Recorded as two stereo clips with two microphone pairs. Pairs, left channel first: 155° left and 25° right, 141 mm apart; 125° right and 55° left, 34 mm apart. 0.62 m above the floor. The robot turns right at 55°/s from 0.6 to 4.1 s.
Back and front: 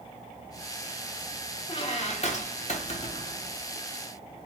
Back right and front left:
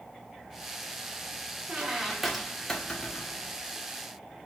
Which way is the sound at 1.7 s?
105° left.